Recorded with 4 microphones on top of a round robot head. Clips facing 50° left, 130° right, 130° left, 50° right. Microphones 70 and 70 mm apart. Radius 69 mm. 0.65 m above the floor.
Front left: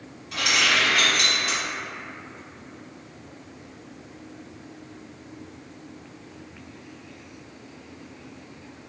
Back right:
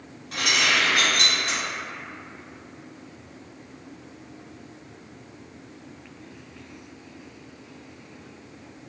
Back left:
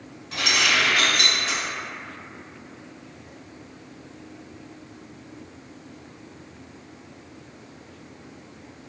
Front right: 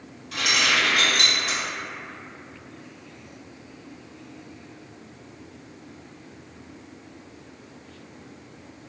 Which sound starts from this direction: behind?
Keys jangling, at 0.3 s.